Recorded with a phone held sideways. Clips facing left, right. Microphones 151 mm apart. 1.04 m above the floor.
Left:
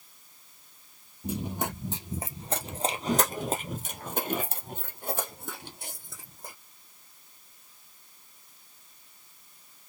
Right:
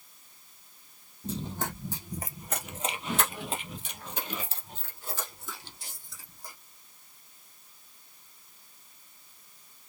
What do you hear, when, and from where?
1.2 s running footsteps: 10° left (ahead or behind), 1.7 m; by 6.5 s 55° left (ahead or behind), 2.5 m